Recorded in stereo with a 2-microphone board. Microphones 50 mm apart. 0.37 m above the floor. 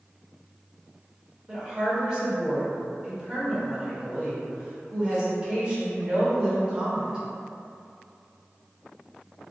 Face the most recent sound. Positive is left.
turn(degrees=-20)  # may be behind; listen again after turning